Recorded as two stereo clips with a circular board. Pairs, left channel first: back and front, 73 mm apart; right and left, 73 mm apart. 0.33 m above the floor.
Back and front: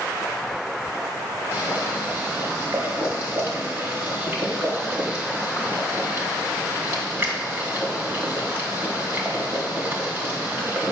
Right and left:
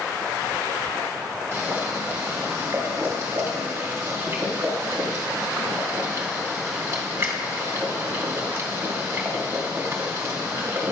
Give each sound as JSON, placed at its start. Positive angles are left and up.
{"t": 1.5, "sound": "boiling", "azimuth_deg": 50, "distance_m": 1.4}